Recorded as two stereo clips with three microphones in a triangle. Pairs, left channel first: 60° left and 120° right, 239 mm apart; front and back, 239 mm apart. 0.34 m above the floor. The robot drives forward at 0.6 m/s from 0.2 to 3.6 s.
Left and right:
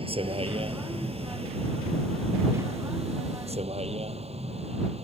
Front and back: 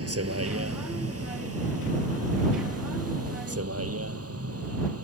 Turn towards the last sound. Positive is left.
turn(degrees=175)